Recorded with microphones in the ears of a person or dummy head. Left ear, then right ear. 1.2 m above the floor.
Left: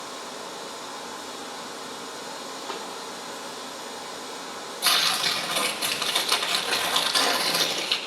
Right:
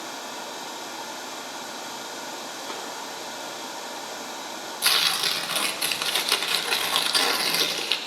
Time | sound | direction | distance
0.0 | running water | 55° right (ahead or behind) | 2 m
2.7 | a snare drum | 5° left (ahead or behind) | 5 m
4.8 | tearing paper | 20° right (ahead or behind) | 1.5 m